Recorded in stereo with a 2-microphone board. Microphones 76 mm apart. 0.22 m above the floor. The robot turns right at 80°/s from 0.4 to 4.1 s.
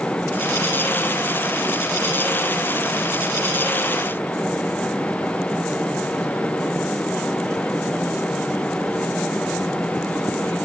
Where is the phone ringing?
No phone ringing in this recording.